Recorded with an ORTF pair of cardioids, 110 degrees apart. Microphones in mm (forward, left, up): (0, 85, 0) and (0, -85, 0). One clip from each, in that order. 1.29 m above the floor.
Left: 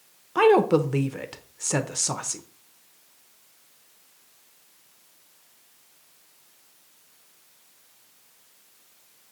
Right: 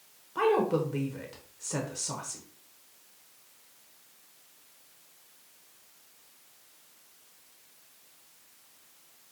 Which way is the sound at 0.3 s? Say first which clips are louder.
Left 8 dB; 50° left.